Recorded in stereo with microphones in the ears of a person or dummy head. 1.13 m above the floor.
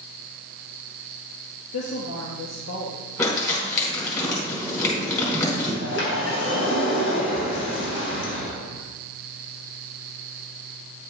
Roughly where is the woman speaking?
Left.